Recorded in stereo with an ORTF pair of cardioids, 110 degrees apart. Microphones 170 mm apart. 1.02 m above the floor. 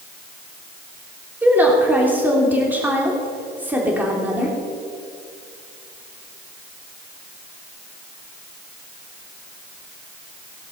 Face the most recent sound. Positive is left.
turn(degrees=-10)